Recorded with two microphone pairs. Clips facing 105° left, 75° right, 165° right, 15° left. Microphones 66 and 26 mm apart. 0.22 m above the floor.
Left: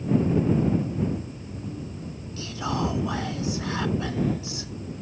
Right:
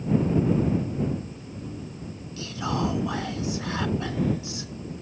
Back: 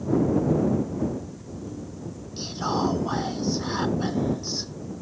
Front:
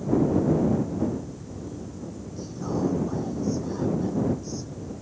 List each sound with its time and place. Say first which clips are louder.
2.4 s whispering: even, back 3 dB; 165° right